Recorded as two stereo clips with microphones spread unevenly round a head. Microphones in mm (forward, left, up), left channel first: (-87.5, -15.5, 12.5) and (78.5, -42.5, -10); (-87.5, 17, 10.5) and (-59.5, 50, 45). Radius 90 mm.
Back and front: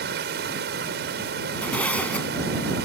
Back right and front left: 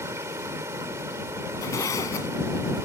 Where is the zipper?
110° right.